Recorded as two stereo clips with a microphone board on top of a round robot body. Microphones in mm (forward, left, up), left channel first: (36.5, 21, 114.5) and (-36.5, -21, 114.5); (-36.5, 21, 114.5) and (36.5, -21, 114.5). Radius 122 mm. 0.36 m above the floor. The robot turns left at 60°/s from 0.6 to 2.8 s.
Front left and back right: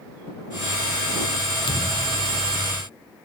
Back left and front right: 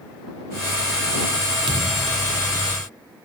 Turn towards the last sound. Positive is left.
turn(degrees=-65)